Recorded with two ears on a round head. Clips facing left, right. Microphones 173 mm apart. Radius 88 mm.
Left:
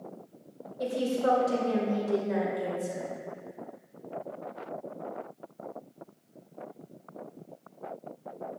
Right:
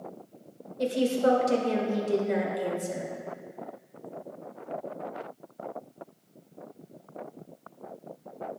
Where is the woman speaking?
30° right (ahead or behind), 1.6 m.